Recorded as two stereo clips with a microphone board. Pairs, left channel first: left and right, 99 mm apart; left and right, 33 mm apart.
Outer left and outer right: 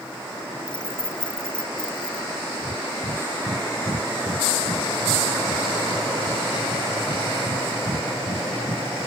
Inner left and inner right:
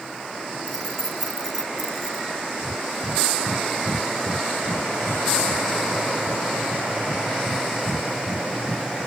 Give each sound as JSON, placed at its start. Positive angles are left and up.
{"t": 0.7, "sound": "keys jangling", "side_deg": 10}
{"t": 2.6, "sound": "breathing", "side_deg": -45}